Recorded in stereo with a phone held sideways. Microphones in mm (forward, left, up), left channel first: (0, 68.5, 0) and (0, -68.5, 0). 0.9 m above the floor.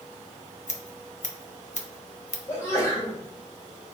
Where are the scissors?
60° left (ahead or behind), 0.9 m.